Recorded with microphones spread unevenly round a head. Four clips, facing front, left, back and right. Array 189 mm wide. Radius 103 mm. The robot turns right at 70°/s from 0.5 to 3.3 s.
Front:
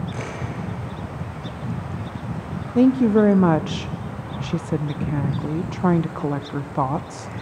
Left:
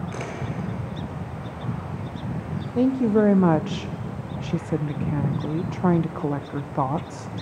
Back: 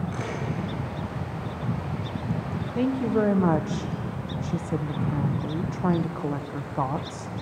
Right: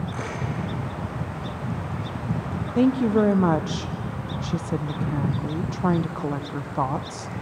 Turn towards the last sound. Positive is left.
turn(degrees=60)